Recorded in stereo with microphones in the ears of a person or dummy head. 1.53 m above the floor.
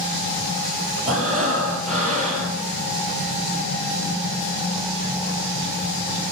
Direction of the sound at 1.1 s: 40° right (ahead or behind).